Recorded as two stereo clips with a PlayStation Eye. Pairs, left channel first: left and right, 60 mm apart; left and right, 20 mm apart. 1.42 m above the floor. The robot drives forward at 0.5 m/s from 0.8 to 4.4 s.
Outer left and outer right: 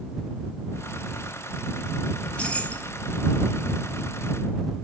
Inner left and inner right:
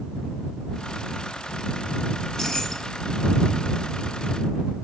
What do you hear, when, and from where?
2.2 s keys jangling: 20° left (ahead or behind), 1.5 m; by 2.9 s 25° left (ahead or behind), 1.2 m